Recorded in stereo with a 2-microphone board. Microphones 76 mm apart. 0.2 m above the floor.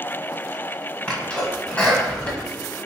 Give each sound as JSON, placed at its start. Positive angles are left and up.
{"t": 1.1, "sound": "a sneeze", "side_deg": 20, "distance_m": 1.0}